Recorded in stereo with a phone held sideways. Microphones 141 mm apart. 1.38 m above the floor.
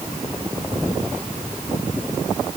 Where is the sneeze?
I don't hear a sneeze.